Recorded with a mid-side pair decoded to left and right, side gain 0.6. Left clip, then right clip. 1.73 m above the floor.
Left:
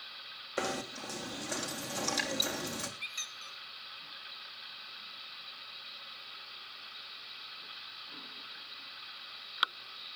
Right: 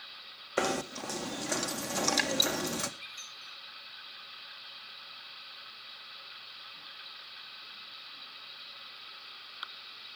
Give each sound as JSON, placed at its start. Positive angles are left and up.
{"t": 0.6, "sound": "knocking", "azimuth_deg": -30, "distance_m": 1.6}
{"t": 3.0, "sound": "a squeak", "azimuth_deg": 40, "distance_m": 2.0}